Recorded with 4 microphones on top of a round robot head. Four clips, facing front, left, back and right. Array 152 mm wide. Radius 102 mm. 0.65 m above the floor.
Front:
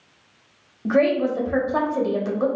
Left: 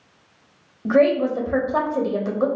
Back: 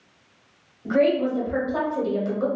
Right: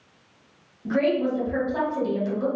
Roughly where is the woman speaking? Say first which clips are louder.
Left 5 dB, front 1 dB; ahead left.